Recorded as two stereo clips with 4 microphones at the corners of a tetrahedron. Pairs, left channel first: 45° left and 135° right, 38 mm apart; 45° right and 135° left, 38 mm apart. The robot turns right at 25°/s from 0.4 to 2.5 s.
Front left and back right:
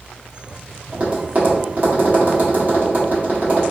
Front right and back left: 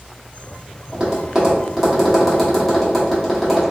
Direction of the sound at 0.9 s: 170° right.